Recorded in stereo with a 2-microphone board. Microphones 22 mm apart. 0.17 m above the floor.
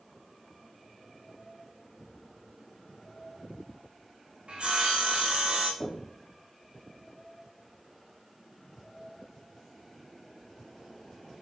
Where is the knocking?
55° left (ahead or behind), 3 m.